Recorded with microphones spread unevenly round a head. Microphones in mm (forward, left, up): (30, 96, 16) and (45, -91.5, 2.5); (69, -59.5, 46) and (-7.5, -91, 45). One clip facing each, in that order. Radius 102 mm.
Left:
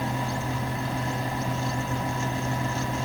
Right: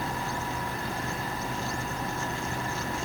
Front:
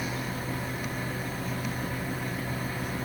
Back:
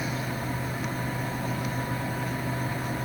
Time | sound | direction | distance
0.0 | a fan | 155° left | 1.8 m